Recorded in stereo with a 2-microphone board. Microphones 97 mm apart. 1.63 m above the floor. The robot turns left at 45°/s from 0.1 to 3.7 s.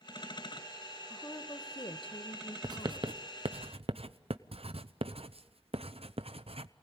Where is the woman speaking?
160° left, 1.2 m; by 3.1 s 70° left, 1.2 m.